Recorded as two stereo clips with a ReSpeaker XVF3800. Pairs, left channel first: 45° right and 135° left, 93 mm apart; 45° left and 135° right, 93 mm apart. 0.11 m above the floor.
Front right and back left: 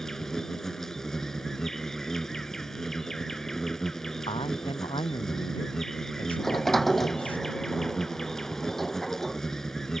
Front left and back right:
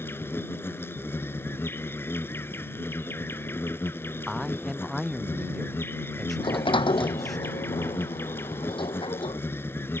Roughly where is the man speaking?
Ahead right.